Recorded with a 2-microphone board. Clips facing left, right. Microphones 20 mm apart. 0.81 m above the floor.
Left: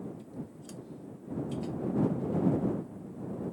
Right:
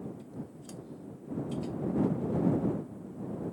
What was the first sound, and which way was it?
Only background noise.